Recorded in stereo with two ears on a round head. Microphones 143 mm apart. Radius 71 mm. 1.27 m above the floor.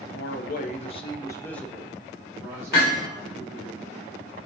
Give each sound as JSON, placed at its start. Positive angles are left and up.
{"t": 0.1, "sound": "a man speaking", "side_deg": 70, "distance_m": 0.7}
{"t": 2.7, "sound": "hammering", "side_deg": 60, "distance_m": 1.8}